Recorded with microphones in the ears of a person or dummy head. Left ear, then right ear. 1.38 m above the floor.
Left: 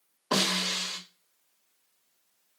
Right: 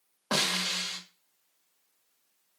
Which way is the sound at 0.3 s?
35° right (ahead or behind).